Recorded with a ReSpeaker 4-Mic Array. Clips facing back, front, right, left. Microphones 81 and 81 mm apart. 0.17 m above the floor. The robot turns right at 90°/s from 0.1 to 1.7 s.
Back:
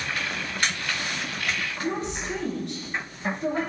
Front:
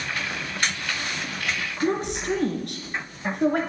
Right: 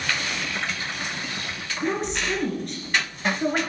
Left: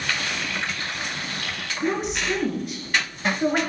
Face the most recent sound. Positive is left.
turn(degrees=5)